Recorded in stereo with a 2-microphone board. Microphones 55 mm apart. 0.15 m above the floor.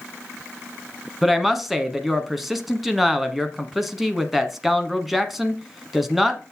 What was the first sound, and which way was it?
A woman speaking, 5° right (ahead or behind).